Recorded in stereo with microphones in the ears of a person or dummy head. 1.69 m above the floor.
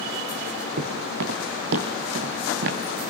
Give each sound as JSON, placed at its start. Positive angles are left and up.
{"t": 0.8, "sound": "footsteps", "side_deg": -65, "distance_m": 4.5}